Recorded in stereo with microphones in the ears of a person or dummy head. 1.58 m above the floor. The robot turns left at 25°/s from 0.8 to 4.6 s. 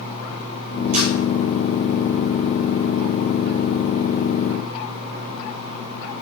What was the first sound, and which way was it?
A camera shutter, 45° right (ahead or behind).